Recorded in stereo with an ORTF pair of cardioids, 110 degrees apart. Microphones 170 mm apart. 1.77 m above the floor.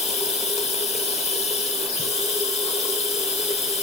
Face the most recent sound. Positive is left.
turn(degrees=40)